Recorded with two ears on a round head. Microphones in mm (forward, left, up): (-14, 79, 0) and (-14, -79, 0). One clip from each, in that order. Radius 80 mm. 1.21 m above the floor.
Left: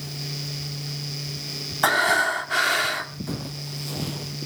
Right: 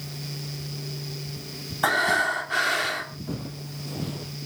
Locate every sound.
1.8 s breathing: 15° left (ahead or behind), 1.6 m
3.3 s footsteps: 50° left (ahead or behind), 2 m; by 4.3 s 20° left (ahead or behind), 1.3 m